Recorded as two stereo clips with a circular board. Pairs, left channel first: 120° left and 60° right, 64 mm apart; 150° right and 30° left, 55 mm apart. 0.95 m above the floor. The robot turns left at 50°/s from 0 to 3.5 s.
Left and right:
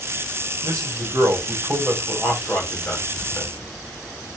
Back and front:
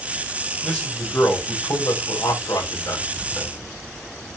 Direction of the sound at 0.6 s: 60° right.